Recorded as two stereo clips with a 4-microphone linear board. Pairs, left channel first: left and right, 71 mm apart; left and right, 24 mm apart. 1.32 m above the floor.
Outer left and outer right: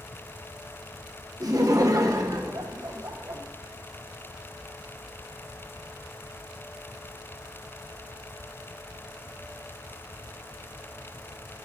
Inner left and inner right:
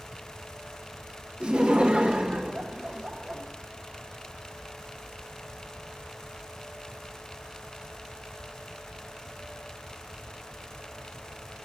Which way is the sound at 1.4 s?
55° right (ahead or behind).